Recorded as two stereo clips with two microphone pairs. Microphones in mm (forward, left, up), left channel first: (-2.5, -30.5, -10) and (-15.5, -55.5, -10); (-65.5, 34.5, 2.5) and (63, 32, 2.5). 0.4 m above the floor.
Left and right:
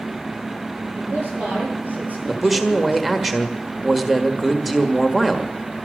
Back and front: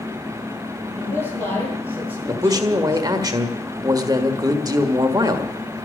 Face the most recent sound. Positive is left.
turn(degrees=-30)